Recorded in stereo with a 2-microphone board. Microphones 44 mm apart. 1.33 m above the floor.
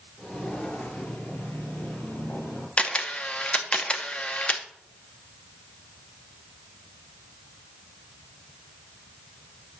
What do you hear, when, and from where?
0.2 s footsteps: 25° left (ahead or behind), 1.6 m; by 2.7 s 55° left (ahead or behind), 2.5 m
2.8 s a camera shutter: 30° left (ahead or behind), 0.7 m